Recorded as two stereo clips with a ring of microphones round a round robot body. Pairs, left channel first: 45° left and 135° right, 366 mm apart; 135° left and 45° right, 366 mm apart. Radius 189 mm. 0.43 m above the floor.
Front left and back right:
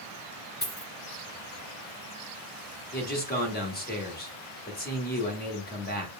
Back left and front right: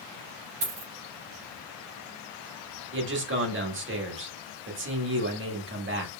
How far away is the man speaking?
About 1.2 m.